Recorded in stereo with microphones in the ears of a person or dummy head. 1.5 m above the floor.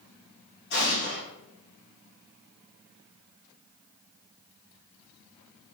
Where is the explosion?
50° left (ahead or behind), 2 m.